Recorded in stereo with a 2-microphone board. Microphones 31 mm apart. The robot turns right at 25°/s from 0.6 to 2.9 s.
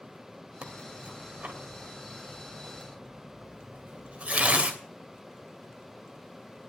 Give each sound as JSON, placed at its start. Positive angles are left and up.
{"t": 0.6, "sound": "tearing paper", "side_deg": -50, "distance_m": 2.5}